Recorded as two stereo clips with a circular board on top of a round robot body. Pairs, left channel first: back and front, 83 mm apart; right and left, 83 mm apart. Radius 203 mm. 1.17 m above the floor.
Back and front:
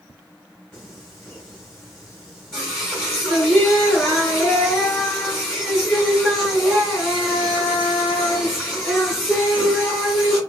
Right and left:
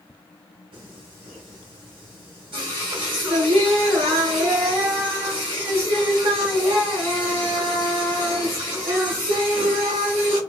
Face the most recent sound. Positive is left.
turn(degrees=100)